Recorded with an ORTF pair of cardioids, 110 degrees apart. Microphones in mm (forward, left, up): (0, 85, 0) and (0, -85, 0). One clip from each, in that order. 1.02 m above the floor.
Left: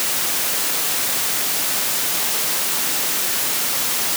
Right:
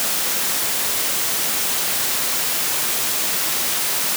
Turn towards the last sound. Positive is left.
No sound to turn to.